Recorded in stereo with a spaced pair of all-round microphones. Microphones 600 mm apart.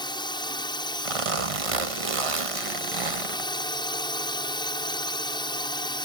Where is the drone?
5° left (ahead or behind).